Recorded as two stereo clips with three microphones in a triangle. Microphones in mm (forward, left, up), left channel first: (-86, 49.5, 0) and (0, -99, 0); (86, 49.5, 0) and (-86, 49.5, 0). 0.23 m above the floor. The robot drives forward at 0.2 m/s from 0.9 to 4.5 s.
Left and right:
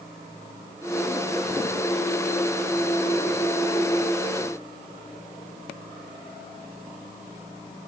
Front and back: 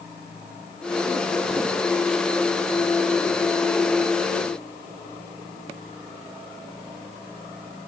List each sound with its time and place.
Only background noise.